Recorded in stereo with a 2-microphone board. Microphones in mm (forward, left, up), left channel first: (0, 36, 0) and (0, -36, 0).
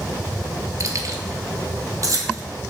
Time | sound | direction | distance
0.8 | keys jangling | 50° right (ahead or behind) | 1.6 m